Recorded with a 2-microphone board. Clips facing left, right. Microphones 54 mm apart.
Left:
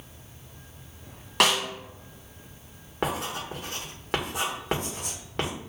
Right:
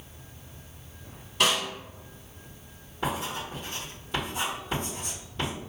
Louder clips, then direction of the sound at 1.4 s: Left 2 dB; 75° left (ahead or behind).